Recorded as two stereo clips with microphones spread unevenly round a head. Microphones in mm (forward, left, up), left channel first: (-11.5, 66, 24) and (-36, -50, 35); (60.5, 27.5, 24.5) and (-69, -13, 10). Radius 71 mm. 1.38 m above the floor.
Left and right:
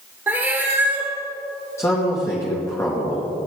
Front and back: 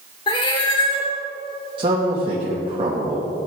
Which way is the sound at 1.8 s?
145° left.